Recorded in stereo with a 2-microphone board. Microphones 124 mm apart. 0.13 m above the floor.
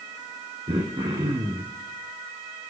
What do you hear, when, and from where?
0.7 s throat clearing: 45° right (ahead or behind), 2.5 m